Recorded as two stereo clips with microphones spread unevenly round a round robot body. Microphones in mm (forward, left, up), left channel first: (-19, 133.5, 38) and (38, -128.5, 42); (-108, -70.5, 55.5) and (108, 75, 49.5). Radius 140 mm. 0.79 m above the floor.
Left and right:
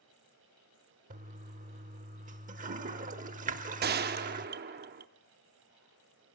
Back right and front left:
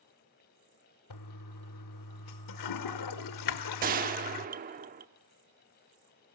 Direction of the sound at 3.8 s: 25° right.